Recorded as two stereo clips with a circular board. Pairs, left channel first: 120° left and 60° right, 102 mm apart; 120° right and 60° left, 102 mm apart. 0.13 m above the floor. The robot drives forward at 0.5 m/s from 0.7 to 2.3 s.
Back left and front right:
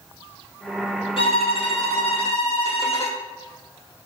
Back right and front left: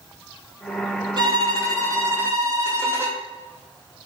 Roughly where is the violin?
Left.